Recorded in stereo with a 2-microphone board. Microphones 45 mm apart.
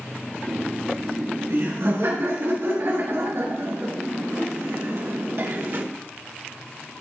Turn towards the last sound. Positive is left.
turn(degrees=-50)  # may be behind; listen again after turning